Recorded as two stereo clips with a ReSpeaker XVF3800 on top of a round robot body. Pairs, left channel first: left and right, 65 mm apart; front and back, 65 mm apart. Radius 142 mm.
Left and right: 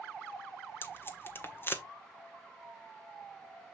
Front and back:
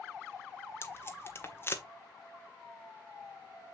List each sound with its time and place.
0.8 s tape being pulled: 45° left, 1.8 m